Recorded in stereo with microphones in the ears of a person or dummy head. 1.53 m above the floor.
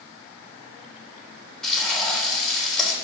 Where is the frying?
5° left (ahead or behind), 3.5 m.